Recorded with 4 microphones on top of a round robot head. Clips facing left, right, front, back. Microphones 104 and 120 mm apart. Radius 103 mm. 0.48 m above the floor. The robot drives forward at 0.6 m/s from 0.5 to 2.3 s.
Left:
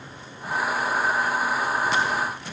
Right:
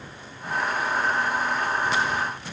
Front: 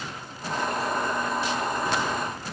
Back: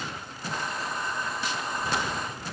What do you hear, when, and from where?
Only background noise.